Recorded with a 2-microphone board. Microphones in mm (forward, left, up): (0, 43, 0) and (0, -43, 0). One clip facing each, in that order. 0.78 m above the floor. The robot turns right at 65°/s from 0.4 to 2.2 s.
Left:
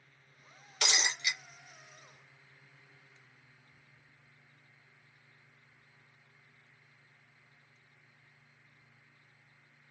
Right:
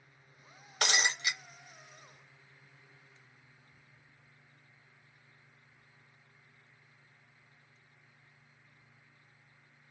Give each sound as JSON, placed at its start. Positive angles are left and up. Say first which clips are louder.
{"t": 0.8, "sound": "breaking glass", "louder": "right 3 dB", "azimuth_deg": -90, "distance_m": 0.9}